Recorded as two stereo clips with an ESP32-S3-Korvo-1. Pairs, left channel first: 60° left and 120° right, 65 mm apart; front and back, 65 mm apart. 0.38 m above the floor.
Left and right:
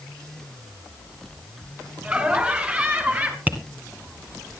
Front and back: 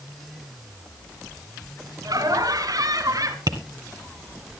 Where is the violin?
I don't hear a violin.